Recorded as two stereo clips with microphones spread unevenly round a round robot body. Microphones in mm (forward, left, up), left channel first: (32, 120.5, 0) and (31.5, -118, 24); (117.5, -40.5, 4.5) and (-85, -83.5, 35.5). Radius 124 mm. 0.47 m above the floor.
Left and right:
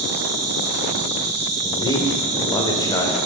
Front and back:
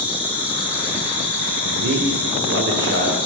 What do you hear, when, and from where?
0.0 s an insect: 80° right, 2 m
1.6 s a man speaking: 160° left, 1.6 m